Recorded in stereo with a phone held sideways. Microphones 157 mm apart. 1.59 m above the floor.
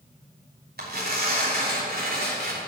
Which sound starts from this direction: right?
Tearing paper, at 0.8 s.